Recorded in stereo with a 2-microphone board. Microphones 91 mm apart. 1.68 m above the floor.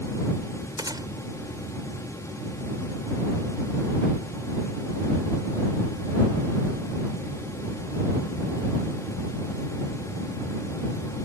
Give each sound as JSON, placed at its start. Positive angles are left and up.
{"t": 0.8, "sound": "a gunshot", "side_deg": -50}